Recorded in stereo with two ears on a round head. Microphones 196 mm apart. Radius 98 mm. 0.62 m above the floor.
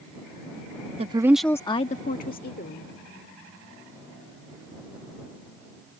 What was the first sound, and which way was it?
A woman speaking, 30° right (ahead or behind).